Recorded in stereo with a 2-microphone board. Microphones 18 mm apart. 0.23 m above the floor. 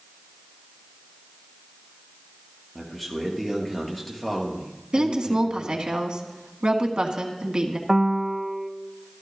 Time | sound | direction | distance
2.8 | a man speaking | 5° left (ahead or behind) | 3.5 m
4.9 | a woman speaking | 50° right (ahead or behind) | 1.9 m
7.9 | a piano | 25° right (ahead or behind) | 0.5 m